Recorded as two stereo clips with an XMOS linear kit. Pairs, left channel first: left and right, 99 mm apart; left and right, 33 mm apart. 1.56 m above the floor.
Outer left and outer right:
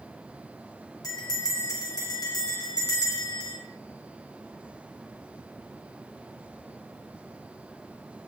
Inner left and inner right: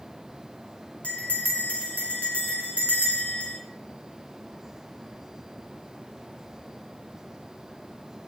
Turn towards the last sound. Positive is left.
turn(degrees=45)  # may be behind; listen again after turning